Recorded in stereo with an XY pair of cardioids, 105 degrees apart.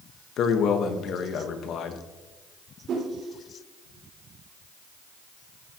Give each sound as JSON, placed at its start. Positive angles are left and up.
{"t": 0.4, "sound": "a man speaking", "azimuth_deg": 70, "distance_m": 1.3}
{"t": 2.9, "sound": "a whoosh", "azimuth_deg": -55, "distance_m": 5.0}